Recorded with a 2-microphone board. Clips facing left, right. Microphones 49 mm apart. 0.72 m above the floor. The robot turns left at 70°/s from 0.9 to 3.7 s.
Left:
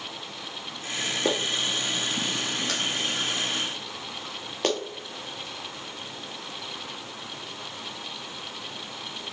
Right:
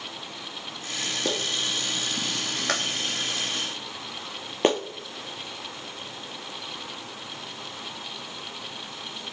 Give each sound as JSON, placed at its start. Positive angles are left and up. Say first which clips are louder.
{"t": 1.2, "sound": "a clap", "louder": "left 2 dB", "side_deg": 20, "distance_m": 1.1}